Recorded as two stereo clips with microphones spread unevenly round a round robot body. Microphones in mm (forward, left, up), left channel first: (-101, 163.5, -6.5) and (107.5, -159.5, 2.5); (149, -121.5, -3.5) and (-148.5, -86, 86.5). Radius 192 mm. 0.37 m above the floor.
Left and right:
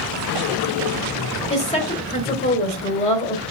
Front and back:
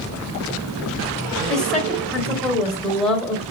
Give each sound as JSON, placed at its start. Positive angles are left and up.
{"t": 1.5, "sound": "a woman speaking", "azimuth_deg": 60, "distance_m": 1.0}